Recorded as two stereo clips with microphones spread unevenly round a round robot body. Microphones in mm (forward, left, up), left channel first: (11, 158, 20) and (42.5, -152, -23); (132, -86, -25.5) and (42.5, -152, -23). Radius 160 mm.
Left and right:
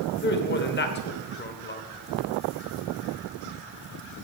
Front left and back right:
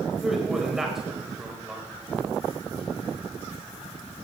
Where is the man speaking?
130° left, 1.3 m.